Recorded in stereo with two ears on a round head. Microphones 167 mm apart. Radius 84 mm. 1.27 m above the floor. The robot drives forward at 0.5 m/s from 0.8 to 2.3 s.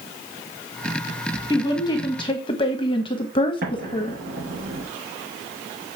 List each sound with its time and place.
1.5 s a woman speaking: 20° left (ahead or behind), 1.5 m; by 4.2 s 30° left (ahead or behind), 1.1 m
3.6 s an explosion: 50° right (ahead or behind), 3.5 m